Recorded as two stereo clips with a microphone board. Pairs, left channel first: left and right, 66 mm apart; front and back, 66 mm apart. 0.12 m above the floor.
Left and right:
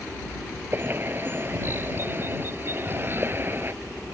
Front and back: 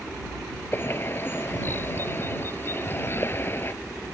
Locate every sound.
0.7 s a bird: 45° right